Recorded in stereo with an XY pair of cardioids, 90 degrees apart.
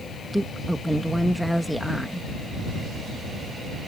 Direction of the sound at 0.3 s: Straight ahead.